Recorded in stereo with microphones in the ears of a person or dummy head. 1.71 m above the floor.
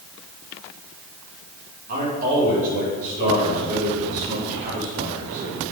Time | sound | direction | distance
1.9 | a man speaking | 45° right (ahead or behind) | 4 m